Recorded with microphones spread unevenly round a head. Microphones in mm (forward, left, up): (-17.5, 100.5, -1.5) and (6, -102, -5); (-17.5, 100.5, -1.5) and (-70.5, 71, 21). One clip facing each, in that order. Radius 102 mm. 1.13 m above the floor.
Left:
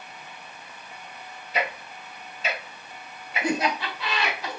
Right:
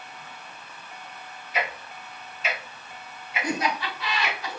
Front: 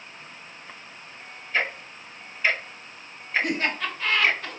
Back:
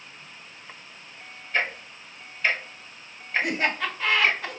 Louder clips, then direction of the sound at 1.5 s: Left 1 dB, even; 140° left.